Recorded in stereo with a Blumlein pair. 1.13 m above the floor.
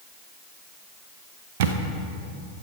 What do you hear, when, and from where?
1.6 s a camera shutter: 50° right, 0.8 m